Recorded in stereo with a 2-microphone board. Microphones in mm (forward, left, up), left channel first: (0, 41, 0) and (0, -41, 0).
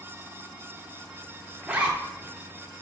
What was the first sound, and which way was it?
A zipper, 15° right (ahead or behind).